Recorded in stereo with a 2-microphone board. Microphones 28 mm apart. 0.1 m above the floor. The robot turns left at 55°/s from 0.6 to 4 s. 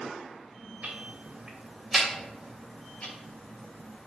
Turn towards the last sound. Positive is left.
turn(degrees=70)  # may be behind; listen again after turning